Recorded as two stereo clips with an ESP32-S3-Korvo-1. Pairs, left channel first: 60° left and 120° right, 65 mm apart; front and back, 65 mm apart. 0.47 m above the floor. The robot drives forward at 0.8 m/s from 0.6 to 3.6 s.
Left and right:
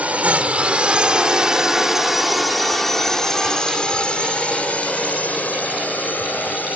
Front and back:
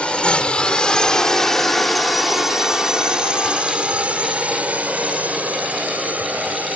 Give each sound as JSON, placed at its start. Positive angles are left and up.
{"t": 0.0, "sound": "a drone", "azimuth_deg": -65}